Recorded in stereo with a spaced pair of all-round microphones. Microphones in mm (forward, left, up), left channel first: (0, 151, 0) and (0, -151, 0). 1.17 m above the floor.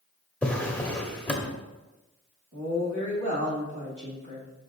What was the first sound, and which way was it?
A drawer, 5° left (ahead or behind).